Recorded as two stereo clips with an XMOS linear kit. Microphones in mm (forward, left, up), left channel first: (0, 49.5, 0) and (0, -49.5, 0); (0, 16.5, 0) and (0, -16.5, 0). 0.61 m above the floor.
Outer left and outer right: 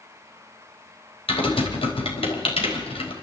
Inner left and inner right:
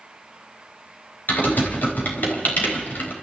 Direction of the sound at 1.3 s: 70° left (ahead or behind).